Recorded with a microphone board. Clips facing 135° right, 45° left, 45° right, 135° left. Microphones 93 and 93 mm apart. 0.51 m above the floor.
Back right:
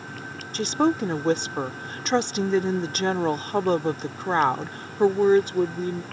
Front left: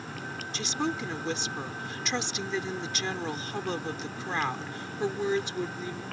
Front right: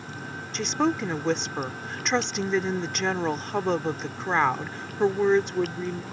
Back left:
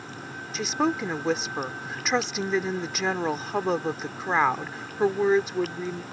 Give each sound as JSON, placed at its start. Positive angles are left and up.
{"t": 0.5, "sound": "a woman speaking", "azimuth_deg": -140}